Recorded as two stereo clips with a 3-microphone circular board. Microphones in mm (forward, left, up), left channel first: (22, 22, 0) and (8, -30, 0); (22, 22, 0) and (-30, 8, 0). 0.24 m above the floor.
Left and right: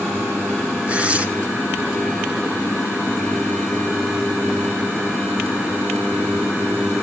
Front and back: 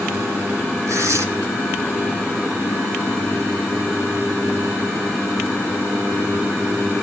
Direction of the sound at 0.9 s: 170° right.